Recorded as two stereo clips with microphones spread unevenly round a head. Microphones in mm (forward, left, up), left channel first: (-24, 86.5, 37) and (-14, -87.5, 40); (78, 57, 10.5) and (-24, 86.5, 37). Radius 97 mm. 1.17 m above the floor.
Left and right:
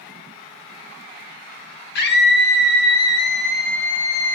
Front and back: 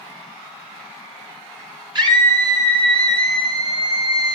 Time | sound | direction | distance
1.9 | a scream | 125° left | 6.5 m